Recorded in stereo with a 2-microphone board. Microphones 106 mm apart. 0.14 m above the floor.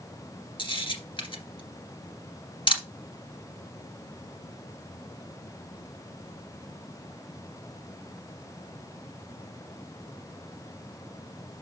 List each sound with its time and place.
0.6 s a camera shutter: 50° left (ahead or behind), 2 m